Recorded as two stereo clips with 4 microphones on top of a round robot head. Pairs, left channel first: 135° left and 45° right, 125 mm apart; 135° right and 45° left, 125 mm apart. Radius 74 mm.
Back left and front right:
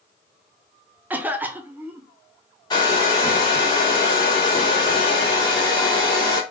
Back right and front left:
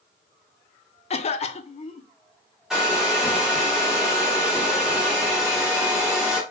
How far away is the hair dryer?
About 0.5 m.